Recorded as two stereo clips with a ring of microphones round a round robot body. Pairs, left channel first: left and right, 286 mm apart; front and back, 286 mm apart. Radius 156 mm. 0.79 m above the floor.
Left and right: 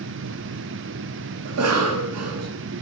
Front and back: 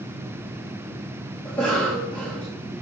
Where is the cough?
85° right, 0.9 m.